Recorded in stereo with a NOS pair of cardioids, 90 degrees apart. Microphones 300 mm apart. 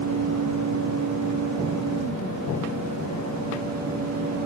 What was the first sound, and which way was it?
A fan, 65° right.